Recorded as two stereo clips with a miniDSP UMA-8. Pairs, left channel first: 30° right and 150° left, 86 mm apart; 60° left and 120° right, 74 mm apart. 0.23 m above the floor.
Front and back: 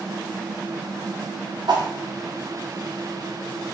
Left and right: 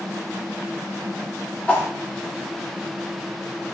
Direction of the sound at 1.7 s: 130° left.